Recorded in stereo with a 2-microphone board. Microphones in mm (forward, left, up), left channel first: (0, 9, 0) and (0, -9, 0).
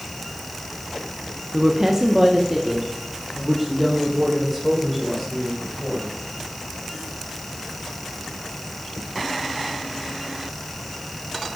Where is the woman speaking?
25° right (ahead or behind), 0.8 m; by 6.1 s 5° right (ahead or behind), 3.5 m.